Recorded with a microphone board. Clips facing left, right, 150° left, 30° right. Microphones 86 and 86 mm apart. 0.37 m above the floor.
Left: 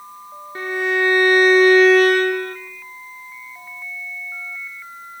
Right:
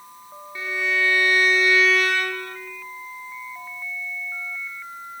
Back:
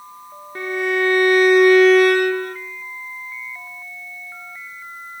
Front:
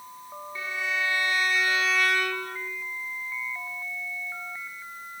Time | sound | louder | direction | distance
0.6 | a violin | left 5 dB, back 11 dB | 125° left | 1.1 m